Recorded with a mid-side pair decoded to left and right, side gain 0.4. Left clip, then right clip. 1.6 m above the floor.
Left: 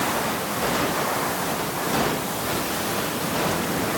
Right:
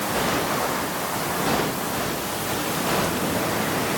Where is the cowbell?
I don't hear a cowbell.